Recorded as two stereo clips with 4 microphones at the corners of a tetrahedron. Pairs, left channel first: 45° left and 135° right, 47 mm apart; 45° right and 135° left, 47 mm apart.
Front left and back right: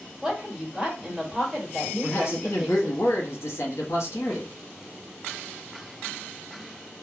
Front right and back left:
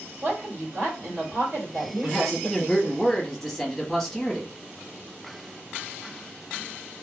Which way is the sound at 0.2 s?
145° left.